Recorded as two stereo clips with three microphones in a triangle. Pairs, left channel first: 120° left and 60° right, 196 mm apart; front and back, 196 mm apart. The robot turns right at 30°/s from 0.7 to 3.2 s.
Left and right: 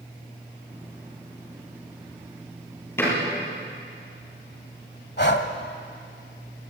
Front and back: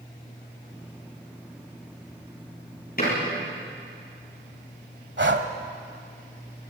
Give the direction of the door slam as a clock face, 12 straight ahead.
11 o'clock.